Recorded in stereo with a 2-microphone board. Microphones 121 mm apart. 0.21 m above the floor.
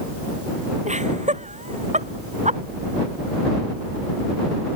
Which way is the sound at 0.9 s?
75° right (ahead or behind).